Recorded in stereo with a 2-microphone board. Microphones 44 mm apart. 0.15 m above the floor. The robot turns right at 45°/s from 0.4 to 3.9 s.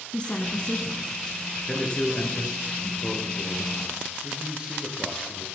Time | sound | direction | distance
0.1 | a woman speaking | 20° left (ahead or behind) | 1.1 m
1.7 | a man speaking | 20° left | 2.5 m
4.2 | a man speaking | 20° right (ahead or behind) | 3 m